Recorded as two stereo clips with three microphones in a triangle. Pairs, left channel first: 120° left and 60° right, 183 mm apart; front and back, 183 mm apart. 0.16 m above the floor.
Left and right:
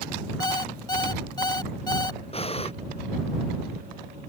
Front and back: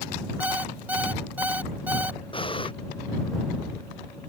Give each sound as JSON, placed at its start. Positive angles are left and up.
{"t": 0.4, "sound": "an alarm clock", "azimuth_deg": 115}
{"t": 2.3, "sound": "breathing", "azimuth_deg": 60}